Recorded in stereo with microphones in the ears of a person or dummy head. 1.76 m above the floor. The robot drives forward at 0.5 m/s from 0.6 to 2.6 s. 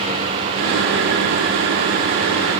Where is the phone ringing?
No phone ringing in this recording.